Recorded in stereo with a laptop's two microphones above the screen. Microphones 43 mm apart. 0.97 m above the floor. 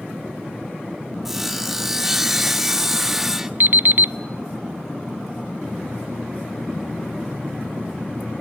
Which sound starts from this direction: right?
An alarm clock, at 3.6 s.